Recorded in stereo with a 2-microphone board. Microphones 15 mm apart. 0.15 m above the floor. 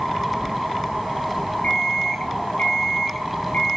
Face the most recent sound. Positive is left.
turn(degrees=85)